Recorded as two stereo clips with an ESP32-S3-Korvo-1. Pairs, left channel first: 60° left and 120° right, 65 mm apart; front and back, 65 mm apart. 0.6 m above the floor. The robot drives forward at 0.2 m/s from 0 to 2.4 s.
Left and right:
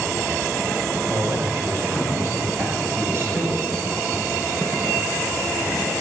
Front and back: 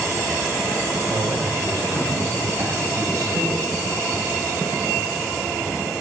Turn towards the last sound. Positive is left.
turn(degrees=-170)